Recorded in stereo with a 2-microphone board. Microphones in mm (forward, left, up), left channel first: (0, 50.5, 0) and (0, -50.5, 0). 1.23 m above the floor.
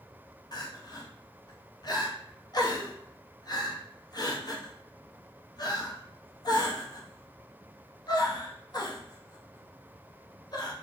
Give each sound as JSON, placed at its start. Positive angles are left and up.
{"t": 0.5, "sound": "crying", "side_deg": 40, "distance_m": 0.8}